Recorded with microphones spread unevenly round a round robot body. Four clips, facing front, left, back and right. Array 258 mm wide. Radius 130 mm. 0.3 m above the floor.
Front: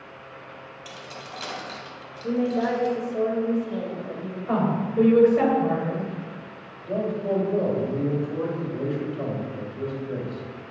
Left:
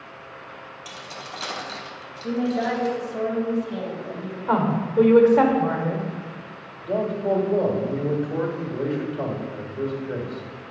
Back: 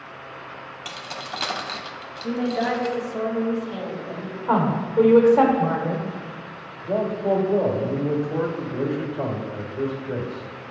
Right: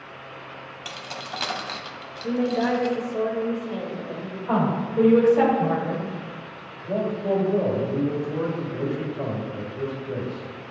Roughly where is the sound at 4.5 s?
Behind left.